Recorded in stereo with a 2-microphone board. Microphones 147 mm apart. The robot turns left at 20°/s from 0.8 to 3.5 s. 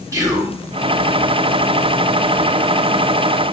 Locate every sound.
0.1 s whispering: 20° right (ahead or behind), 1.1 m